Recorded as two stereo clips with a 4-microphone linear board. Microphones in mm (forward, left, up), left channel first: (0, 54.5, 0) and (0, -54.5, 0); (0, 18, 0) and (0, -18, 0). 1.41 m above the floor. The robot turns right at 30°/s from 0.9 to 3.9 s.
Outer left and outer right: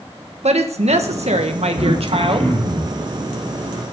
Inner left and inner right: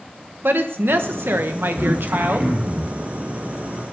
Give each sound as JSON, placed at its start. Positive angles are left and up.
{"t": 0.4, "sound": "a woman speaking", "azimuth_deg": -100, "distance_m": 1.3}
{"t": 1.8, "sound": "throat clearing", "azimuth_deg": -90, "distance_m": 4.5}